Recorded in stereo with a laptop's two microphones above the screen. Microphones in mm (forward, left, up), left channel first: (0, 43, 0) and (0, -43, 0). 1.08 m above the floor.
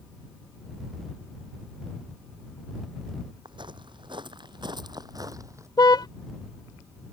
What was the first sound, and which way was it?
Footsteps, 60° right (ahead or behind).